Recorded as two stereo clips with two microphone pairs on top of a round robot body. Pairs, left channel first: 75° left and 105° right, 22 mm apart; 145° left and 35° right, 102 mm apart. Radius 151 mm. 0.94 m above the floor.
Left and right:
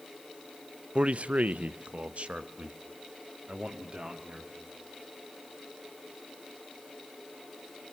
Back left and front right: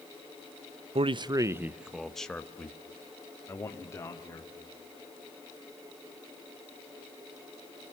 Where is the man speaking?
65° right, 0.7 m; by 4.5 s 155° right, 2.5 m.